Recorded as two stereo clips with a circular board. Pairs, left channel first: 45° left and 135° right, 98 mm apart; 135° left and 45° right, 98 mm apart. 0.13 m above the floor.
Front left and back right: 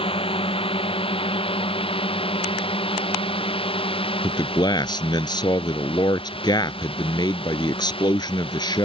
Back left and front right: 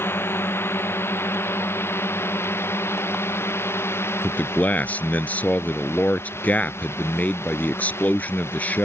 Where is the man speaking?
65° left.